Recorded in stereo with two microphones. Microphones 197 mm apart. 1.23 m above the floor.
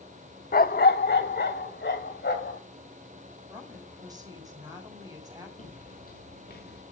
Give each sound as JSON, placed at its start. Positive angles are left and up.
{"t": 0.5, "sound": "a dog barking", "side_deg": 45, "distance_m": 0.9}
{"t": 3.5, "sound": "a woman speaking", "side_deg": -20, "distance_m": 8.0}
{"t": 5.6, "sound": "footsteps", "side_deg": 40, "distance_m": 4.5}